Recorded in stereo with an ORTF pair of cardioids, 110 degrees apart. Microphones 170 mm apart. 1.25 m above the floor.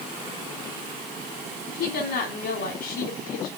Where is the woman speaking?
65° left, 3.5 m.